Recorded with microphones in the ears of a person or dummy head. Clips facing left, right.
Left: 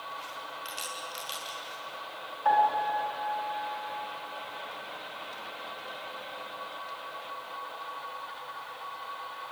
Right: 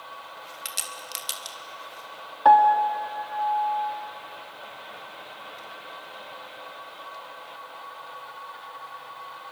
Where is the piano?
65° right (ahead or behind), 1.9 m.